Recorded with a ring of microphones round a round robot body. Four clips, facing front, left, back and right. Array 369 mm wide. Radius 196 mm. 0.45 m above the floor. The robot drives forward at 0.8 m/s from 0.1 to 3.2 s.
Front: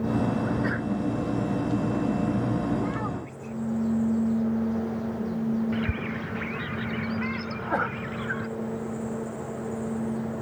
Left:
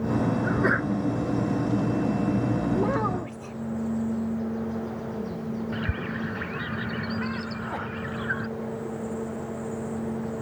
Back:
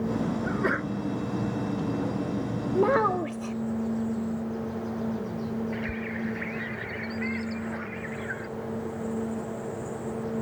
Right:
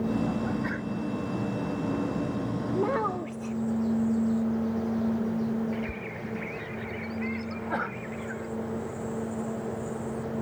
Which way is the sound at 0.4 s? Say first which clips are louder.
Left 6 dB, front 1 dB; 120° left.